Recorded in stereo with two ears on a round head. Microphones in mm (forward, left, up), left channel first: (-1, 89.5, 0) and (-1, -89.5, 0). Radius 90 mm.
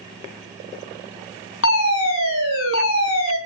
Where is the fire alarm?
70° left (ahead or behind), 5.5 m.